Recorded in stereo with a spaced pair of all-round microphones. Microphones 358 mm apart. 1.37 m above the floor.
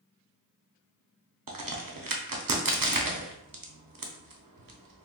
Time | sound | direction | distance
1.5 | a crack | 65° right (ahead or behind) | 0.6 m